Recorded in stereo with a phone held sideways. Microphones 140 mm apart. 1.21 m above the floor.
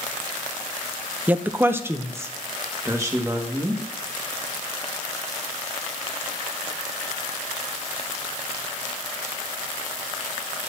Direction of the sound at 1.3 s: 10° right (ahead or behind).